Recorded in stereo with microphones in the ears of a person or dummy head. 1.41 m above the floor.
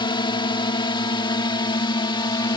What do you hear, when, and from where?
0.0 s a drone: 30° left (ahead or behind); by 2.6 s 25° left (ahead or behind)